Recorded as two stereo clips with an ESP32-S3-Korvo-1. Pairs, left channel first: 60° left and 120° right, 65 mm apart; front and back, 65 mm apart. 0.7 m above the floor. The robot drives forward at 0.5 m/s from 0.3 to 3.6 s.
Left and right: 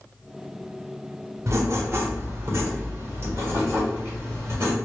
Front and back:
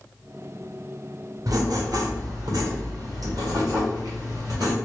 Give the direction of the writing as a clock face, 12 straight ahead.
5 o'clock.